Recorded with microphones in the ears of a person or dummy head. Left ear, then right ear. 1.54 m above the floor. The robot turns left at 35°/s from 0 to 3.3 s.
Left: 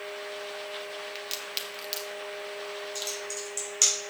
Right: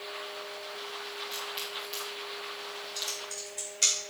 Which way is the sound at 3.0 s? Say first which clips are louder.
Right 1 dB; 40° left (ahead or behind).